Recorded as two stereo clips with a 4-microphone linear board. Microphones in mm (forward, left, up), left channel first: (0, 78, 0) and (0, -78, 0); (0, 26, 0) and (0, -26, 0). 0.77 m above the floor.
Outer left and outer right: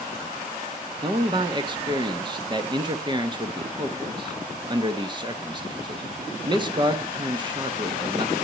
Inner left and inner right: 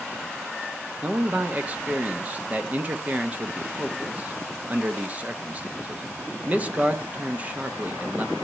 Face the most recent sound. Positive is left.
turn(degrees=-30)  # may be behind; listen again after turning